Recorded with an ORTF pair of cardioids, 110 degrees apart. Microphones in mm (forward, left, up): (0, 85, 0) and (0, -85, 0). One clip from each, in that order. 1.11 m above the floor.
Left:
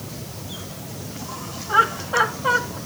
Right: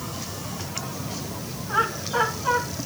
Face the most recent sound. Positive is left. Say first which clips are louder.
# left 6 dB
turn(degrees=40)